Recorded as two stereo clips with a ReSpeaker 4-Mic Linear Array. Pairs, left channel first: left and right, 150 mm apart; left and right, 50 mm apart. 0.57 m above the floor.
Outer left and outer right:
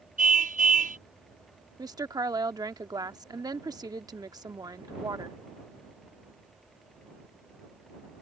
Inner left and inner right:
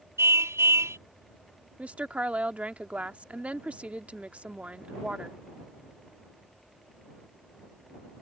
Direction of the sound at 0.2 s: 65° right (ahead or behind).